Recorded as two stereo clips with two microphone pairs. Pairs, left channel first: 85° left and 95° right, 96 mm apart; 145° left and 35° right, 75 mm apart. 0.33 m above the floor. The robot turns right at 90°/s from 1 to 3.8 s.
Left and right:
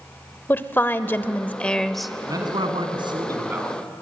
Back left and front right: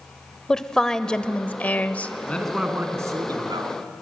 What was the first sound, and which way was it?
A woman speaking, 80° left.